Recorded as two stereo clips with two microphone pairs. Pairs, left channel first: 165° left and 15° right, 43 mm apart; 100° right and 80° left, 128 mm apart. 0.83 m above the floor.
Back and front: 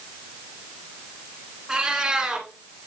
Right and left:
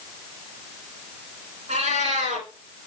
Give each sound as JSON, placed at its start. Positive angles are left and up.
{"t": 1.7, "sound": "a cat meowing", "azimuth_deg": 60, "distance_m": 2.5}